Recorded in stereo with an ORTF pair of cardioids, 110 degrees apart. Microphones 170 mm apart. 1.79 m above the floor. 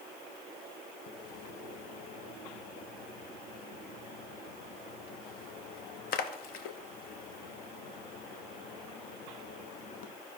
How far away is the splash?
About 0.9 m.